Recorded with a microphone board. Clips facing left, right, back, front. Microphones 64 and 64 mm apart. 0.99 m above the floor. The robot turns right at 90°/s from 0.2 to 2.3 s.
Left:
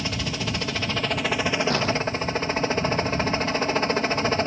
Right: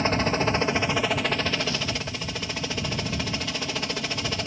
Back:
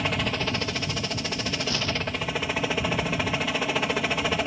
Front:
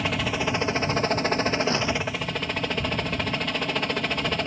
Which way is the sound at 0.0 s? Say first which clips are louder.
Right 6 dB, front 1 dB; 90° right.